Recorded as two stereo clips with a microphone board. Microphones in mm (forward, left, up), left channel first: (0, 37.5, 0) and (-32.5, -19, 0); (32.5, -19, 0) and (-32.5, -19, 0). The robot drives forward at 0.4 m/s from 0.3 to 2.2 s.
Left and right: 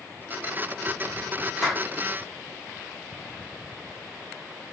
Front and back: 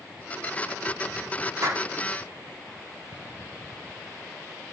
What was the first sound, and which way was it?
A clap, 145° left.